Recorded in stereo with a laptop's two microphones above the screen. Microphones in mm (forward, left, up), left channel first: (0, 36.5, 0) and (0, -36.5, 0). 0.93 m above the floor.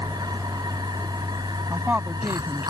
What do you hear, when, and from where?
0.0 s a machine running: 70° right (ahead or behind)
1.7 s a woman speaking: 20° right (ahead or behind)